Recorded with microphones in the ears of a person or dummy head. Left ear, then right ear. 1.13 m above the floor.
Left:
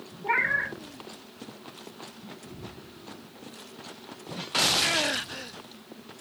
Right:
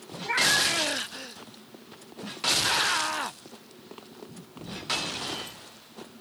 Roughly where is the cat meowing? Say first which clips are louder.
Right 2 dB; centre.